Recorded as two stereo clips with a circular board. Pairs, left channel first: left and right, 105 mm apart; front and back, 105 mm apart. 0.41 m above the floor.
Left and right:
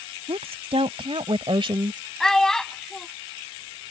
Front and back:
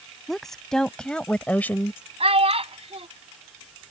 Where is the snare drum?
I don't hear a snare drum.